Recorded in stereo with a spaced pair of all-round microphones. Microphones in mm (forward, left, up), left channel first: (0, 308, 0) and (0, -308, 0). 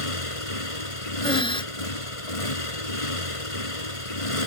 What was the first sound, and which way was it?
A motorcycle, 60° left (ahead or behind).